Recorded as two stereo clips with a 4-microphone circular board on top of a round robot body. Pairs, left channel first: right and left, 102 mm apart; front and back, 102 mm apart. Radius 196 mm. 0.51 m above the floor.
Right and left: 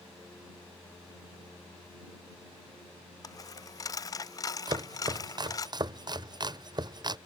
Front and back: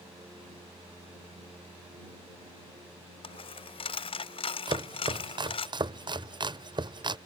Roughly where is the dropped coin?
Ahead right.